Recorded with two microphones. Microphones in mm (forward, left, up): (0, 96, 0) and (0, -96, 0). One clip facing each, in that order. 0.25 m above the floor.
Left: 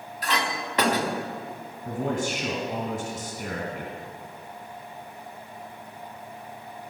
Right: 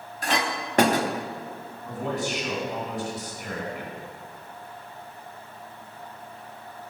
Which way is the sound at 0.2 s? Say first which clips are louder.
Right 2 dB; 50° right (ahead or behind).